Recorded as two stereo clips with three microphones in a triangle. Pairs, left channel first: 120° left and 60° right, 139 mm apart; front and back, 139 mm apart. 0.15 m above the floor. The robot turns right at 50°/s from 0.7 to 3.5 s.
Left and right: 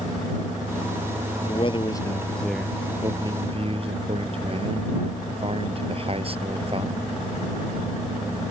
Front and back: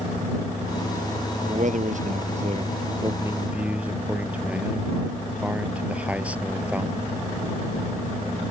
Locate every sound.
1.4 s a man speaking: 155° left; by 7.1 s 100° right